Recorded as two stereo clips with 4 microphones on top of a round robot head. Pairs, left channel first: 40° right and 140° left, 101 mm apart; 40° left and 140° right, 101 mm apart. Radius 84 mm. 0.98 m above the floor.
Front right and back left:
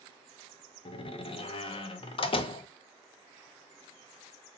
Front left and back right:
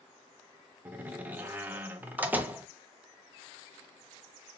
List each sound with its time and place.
0.8 s a door slam: 70° right, 0.6 m